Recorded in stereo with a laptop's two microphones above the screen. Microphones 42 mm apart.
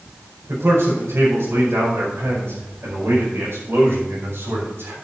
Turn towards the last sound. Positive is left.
turn(degrees=-70)  # may be behind; listen again after turning